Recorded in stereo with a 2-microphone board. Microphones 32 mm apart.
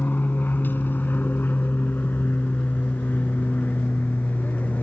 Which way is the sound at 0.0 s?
65° left (ahead or behind).